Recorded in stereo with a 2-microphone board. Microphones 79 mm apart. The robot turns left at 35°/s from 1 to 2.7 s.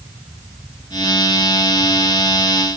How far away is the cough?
No cough in this recording.